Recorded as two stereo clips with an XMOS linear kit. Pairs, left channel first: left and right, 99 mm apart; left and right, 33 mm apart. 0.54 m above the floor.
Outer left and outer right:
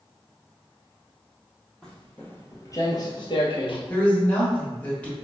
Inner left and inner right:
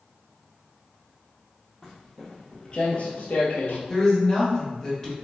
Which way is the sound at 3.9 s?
15° left (ahead or behind).